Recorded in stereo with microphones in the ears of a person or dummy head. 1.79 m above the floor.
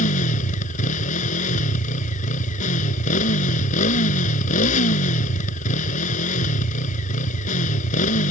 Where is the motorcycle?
45° left (ahead or behind).